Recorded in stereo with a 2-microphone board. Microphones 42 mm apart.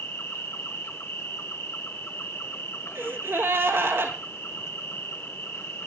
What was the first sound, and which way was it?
An insect, 80° left.